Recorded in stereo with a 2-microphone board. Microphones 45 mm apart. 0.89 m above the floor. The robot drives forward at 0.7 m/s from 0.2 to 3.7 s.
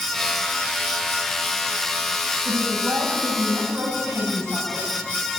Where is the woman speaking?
80° right, 7 m; by 4.9 s 75° right (ahead or behind), 7.5 m.